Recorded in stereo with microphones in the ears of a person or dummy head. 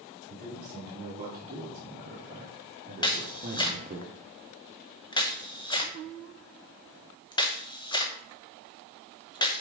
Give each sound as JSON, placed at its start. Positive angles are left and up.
{"t": 0.3, "sound": "a man speaking", "side_deg": -35, "distance_m": 2.5}
{"t": 3.0, "sound": "a camera shutter", "side_deg": 20, "distance_m": 0.8}